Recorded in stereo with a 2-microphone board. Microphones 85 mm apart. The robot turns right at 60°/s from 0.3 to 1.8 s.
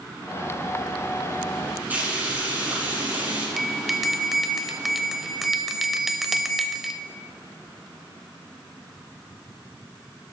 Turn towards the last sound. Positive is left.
turn(degrees=0)  # may be behind; listen again after turning